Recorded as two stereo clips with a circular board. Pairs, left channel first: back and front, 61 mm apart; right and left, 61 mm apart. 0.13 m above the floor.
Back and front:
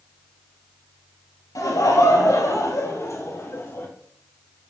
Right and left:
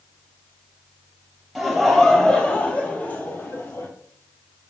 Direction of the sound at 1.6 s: Straight behind.